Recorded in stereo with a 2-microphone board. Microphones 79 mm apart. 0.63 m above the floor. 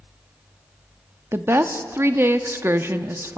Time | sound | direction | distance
1.3 | a woman speaking | 30° right (ahead or behind) | 0.8 m